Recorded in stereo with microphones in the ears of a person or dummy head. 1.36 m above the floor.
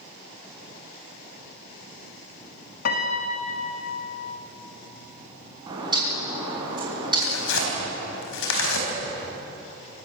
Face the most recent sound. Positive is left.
turn(degrees=80)